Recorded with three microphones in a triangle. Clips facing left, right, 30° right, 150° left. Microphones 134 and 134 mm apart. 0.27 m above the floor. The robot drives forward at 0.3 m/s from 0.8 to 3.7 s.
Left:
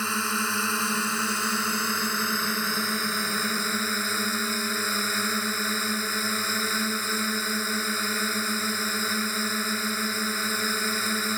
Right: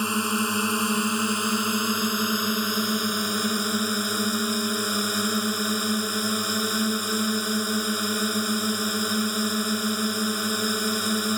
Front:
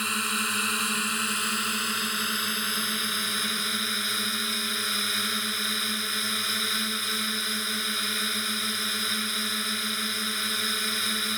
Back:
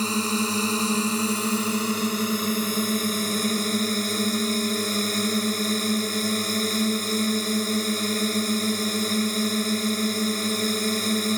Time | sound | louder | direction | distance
0.0 | a drone | right 4 dB, back 8 dB | 160° right | ?